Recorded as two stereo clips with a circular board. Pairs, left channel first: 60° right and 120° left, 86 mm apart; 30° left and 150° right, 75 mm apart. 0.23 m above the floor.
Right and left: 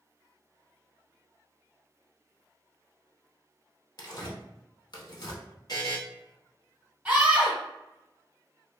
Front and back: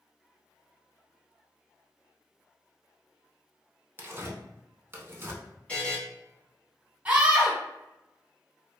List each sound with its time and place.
4.0 s tearing paper: 90° right, 0.6 m
5.7 s a buzzer: 40° right, 1.1 m
7.0 s a scream: 175° left, 1.4 m